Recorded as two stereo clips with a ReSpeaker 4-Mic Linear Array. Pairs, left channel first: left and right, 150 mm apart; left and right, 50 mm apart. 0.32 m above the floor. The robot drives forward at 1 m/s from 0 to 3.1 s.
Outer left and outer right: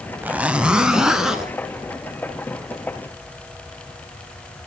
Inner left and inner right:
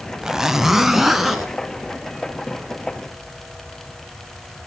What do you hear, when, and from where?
0.2 s a zipper: 15° right (ahead or behind), 0.5 m; by 1.5 s 5° right (ahead or behind), 1.8 m